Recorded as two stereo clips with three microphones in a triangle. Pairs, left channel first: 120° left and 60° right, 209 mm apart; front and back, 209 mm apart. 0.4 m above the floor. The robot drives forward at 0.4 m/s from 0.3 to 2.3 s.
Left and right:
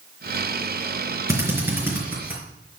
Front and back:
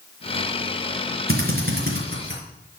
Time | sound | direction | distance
1.3 | a drill | 135° right | 4 m